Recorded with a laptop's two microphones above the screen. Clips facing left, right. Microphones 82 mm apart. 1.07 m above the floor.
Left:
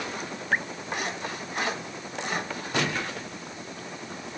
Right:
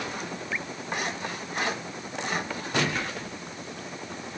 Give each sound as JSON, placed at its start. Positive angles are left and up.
{"t": 0.5, "sound": "dripping", "side_deg": 55}